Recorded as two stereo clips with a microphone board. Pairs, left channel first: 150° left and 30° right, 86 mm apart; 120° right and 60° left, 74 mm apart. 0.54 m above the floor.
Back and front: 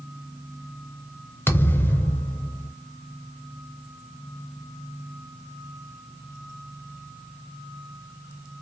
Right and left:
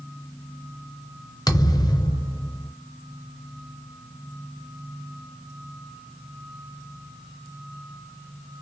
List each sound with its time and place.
1.5 s a thud: 145° right, 0.5 m